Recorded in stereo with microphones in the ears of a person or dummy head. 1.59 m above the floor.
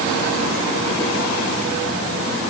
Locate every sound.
Only background noise.